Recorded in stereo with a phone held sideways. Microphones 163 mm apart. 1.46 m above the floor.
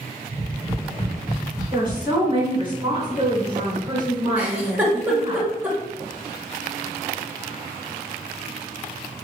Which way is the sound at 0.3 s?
25° left (ahead or behind).